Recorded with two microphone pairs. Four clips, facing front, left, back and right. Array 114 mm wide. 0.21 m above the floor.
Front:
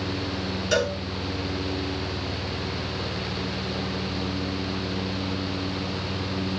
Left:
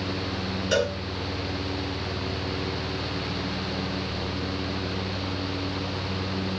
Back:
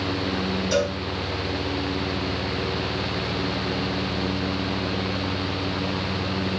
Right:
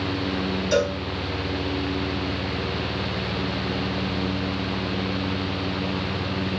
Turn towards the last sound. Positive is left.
turn(degrees=30)